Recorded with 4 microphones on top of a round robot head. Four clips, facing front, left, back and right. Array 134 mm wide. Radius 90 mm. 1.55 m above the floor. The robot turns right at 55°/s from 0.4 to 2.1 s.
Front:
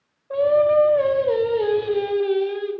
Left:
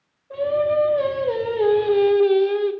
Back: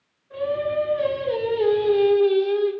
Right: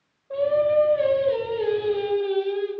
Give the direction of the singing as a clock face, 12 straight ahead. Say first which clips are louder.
Even, front 8 dB; 12 o'clock.